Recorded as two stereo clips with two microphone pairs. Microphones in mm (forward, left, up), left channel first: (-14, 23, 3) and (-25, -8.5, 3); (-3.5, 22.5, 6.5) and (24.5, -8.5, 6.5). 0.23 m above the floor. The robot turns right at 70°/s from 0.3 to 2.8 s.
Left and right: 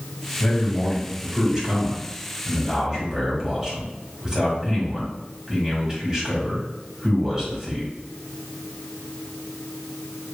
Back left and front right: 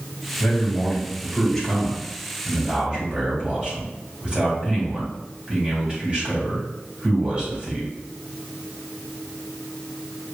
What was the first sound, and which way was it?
A man speaking, 120° left.